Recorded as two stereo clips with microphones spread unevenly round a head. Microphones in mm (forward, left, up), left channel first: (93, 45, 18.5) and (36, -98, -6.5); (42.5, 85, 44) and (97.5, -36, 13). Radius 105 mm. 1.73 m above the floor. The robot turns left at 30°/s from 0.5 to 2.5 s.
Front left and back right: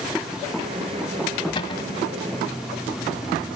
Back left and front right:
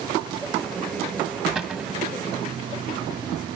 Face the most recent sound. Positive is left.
turn(degrees=5)